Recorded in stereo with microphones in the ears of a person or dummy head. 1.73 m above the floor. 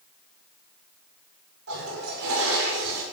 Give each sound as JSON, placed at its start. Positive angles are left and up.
{"t": 1.7, "sound": "a toilet flushing", "side_deg": -80, "distance_m": 5.5}